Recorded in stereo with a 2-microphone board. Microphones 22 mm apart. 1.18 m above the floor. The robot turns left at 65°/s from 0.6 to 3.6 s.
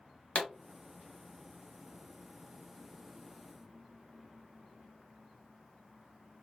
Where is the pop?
45° left (ahead or behind), 0.8 m.